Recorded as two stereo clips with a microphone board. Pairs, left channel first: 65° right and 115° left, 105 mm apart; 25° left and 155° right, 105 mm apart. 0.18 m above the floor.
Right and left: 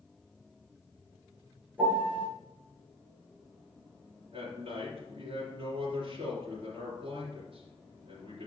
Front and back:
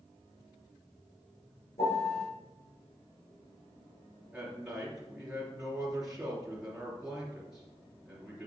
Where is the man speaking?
120° left, 3 m.